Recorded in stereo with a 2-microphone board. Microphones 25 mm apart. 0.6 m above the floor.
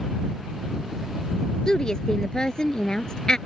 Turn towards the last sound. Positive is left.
turn(degrees=35)  # may be behind; listen again after turning